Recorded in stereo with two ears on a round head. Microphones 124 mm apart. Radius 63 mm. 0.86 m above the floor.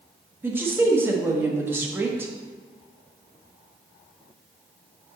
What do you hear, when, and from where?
0.4 s a woman speaking: 15° right (ahead or behind), 1.0 m